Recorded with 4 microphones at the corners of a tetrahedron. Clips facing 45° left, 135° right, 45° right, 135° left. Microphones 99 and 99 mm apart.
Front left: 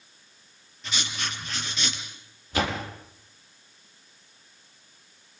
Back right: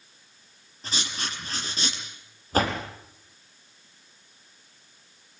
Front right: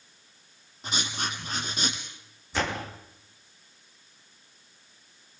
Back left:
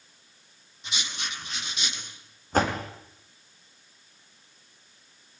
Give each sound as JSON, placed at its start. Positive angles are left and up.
{"t": 0.8, "sound": "writing", "azimuth_deg": -90, "distance_m": 4.0}
{"t": 2.5, "sound": "a door slam", "azimuth_deg": 175, "distance_m": 3.5}